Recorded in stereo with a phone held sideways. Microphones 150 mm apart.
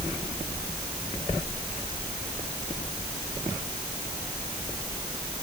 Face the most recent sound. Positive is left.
No sound to turn to.